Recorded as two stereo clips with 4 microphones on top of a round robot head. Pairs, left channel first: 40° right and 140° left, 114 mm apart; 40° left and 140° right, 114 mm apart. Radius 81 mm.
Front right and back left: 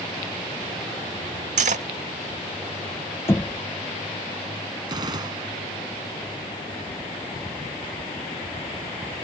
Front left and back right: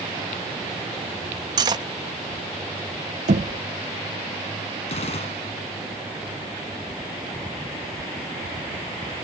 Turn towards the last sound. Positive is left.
turn(degrees=80)